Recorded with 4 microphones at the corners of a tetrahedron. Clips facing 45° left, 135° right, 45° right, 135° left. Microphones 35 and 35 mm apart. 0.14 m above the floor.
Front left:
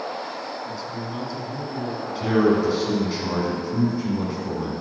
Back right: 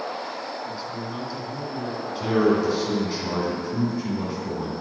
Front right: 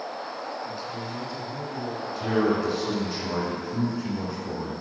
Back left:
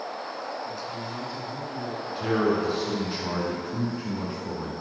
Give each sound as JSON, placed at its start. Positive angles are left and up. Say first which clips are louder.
{"t": 0.7, "sound": "a man speaking", "louder": "front left 1 dB, even", "azimuth_deg": -95, "distance_m": 1.8}
{"t": 2.1, "sound": "a man speaking", "louder": "front left 1 dB, even", "azimuth_deg": 115, "distance_m": 1.8}